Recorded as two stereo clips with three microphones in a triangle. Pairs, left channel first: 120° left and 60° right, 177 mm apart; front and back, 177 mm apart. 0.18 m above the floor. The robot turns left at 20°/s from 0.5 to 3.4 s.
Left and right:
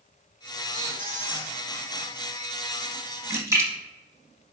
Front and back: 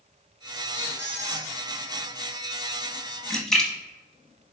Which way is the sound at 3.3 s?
80° right.